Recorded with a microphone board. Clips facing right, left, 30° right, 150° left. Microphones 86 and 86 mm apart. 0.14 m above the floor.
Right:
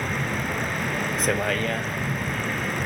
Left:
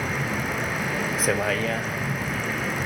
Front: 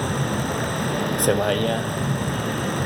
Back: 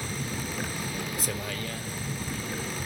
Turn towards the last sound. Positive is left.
turn(degrees=0)